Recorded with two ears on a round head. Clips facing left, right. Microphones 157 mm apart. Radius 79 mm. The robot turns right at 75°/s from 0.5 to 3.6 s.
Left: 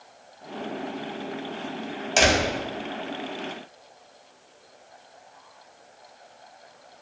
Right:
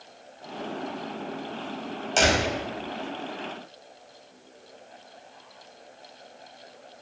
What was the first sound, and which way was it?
A door slam, 10° left (ahead or behind).